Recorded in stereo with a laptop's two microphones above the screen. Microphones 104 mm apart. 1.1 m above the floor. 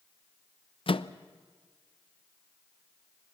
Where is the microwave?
60° left (ahead or behind), 0.5 m.